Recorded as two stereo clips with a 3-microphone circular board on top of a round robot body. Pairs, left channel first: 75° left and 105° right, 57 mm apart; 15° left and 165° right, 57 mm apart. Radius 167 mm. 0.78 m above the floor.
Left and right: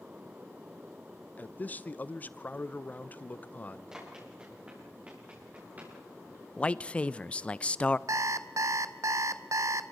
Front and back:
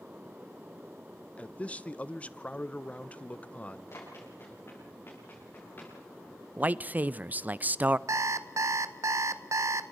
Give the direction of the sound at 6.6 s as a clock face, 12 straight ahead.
7 o'clock.